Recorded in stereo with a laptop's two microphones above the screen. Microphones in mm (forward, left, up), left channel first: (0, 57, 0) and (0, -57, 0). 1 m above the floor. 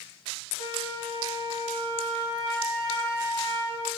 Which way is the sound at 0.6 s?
40° left (ahead or behind).